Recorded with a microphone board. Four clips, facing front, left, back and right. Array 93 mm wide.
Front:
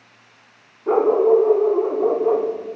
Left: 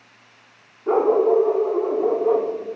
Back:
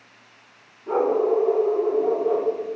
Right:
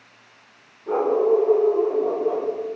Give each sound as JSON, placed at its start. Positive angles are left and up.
{"t": 0.9, "sound": "a dog barking", "azimuth_deg": 25, "distance_m": 4.0}